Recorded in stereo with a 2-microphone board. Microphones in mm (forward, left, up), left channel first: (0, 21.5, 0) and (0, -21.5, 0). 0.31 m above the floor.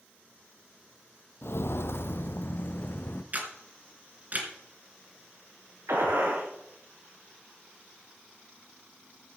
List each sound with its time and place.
1.4 s footsteps: 65° left (ahead or behind), 0.6 m; by 3.2 s 50° left (ahead or behind), 1.4 m
3.3 s a camera shutter: 40° right (ahead or behind), 3 m
5.9 s a gunshot: 75° right (ahead or behind), 7.5 m